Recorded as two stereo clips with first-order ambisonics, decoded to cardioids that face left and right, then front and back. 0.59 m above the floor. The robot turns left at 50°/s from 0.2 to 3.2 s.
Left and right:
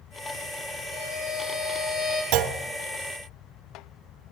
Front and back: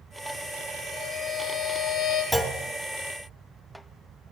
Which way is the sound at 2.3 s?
90° right.